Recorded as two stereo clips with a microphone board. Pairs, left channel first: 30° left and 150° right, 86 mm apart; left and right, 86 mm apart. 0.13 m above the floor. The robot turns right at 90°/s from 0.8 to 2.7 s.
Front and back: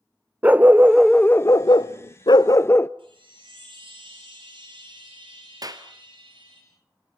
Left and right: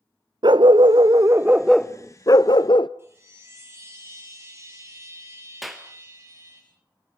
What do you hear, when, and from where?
0.4 s a dog barking: 80° right, 0.6 m; by 2.9 s 90° left, 0.6 m
3.0 s a chime: 150° right, 9.5 m
5.6 s a clap: straight behind, 1.6 m